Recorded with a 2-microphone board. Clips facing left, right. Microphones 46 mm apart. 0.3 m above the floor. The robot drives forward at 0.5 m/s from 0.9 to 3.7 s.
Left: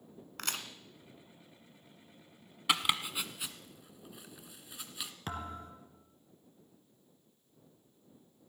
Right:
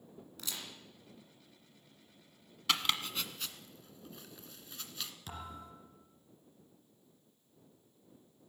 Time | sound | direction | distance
0.4 | a crack | 70° left (ahead or behind) | 2.0 m
2.7 | chopping | 15° left (ahead or behind) | 1.2 m
5.3 | a thud | 50° left (ahead or behind) | 2.5 m